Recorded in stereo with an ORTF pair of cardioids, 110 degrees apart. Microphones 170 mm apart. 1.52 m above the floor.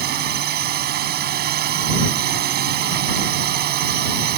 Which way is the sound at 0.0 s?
65° right.